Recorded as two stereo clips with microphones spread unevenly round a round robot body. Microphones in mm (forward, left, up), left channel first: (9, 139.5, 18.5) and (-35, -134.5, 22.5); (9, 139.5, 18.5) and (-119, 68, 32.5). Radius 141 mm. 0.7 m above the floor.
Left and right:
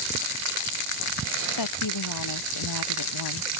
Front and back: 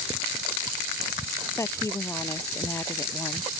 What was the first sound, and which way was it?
A woman speaking, 100° left.